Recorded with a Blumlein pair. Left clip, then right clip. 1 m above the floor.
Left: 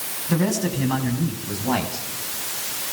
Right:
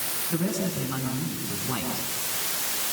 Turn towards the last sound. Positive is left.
turn(degrees=45)